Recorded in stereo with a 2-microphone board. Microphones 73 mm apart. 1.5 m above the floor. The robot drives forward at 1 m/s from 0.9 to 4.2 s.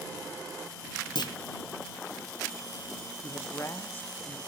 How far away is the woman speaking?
About 0.7 m.